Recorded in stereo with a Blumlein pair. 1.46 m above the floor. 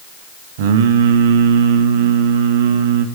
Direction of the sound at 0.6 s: 55° right.